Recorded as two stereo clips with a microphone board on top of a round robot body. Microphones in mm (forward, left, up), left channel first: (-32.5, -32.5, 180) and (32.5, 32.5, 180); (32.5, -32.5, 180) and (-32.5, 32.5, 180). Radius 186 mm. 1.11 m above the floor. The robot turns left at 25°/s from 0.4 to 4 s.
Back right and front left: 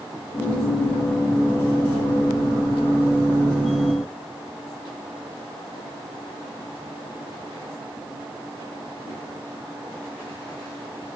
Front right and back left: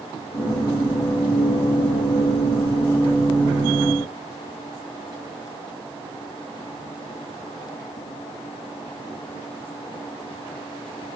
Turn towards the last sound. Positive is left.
No sound to turn to.